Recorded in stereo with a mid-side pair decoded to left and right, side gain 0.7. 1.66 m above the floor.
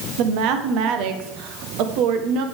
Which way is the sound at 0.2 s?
65° right.